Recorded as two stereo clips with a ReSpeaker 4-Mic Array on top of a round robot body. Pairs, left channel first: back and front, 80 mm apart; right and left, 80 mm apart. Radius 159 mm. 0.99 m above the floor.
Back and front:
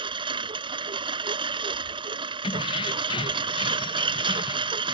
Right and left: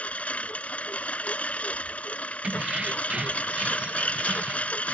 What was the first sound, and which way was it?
A lawn mower, 20° right.